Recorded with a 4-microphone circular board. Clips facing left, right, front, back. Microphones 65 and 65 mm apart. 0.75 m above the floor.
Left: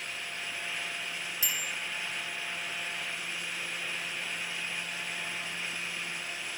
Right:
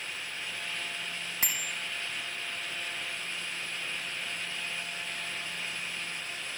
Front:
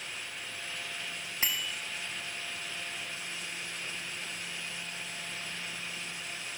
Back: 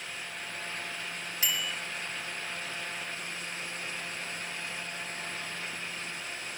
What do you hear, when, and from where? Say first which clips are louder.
1.4 s a bicycle bell: right 1 dB, back 1 dB; 60° right, 5 m